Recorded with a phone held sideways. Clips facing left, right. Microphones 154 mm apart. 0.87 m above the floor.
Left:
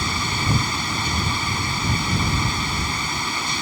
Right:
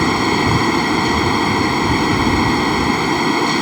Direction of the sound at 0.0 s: 85° right.